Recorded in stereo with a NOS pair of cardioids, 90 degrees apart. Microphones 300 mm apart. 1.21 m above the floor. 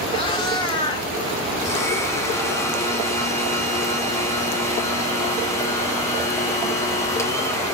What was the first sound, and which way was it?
A cat meowing, 15° left.